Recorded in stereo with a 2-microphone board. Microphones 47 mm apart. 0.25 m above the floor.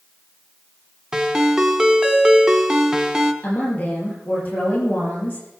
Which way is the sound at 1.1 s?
15° right (ahead or behind).